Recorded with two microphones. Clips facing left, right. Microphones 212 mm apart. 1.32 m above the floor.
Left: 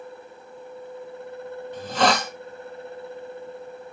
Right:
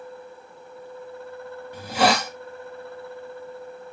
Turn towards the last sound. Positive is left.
turn(degrees=-10)  # may be behind; listen again after turning